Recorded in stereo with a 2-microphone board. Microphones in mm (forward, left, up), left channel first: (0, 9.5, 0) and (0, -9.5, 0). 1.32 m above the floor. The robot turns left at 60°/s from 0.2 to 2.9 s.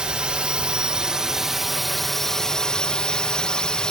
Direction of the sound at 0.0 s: 80° right.